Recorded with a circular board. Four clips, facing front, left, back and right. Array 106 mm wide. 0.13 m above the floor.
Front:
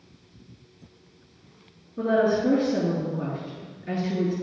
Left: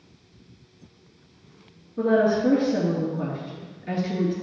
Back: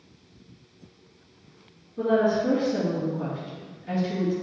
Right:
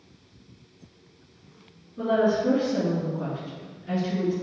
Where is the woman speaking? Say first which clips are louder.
Left 2 dB, even; 55° left, 2 m.